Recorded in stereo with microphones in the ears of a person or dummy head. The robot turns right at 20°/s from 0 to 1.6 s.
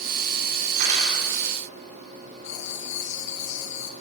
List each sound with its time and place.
0.8 s cutlery clinking: 60° right (ahead or behind), 3 m; by 1.2 s 50° right (ahead or behind), 3 m
2.4 s writing: 75° left (ahead or behind), 1.3 m